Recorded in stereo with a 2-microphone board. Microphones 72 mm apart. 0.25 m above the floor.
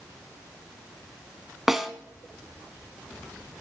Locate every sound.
1.7 s a snare drum: 5° right (ahead or behind), 1.2 m